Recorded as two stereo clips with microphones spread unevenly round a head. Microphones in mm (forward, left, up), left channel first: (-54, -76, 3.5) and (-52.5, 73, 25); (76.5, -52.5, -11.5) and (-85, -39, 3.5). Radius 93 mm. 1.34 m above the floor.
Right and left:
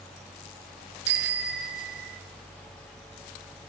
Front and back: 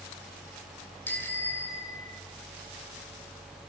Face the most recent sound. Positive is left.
turn(degrees=70)